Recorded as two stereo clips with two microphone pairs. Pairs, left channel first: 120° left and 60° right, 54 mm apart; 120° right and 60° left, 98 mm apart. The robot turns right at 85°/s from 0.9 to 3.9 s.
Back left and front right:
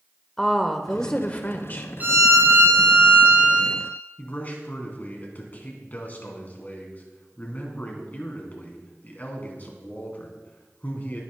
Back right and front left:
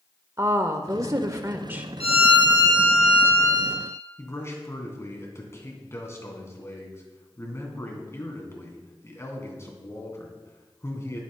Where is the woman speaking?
40° left, 0.9 m; by 1.9 s 125° left, 0.9 m.